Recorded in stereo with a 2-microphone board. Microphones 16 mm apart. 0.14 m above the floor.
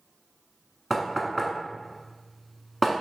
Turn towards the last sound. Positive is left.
turn(degrees=10)  # may be behind; listen again after turning